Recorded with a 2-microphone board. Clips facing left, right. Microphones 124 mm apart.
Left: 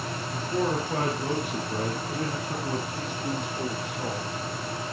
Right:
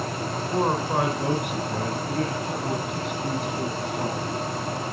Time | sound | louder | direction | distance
0.3 | a man speaking | right 2 dB | 70° right (ahead or behind) | 3.5 m